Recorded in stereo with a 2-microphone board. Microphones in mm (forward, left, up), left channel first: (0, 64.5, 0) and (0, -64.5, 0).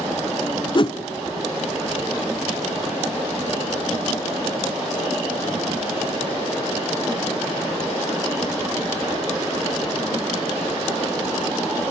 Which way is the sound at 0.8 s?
40° left (ahead or behind).